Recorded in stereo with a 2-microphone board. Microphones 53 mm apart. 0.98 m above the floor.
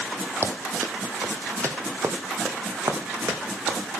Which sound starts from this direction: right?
Running footsteps, at 0.4 s.